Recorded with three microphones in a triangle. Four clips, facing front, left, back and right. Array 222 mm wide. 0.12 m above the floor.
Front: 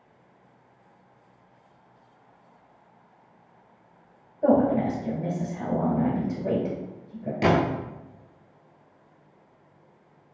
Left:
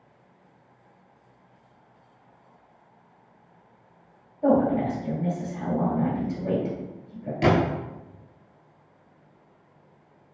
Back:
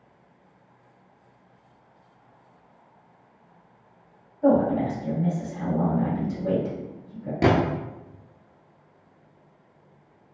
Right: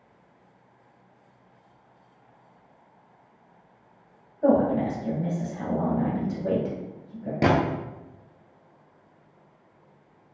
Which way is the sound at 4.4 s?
40° right.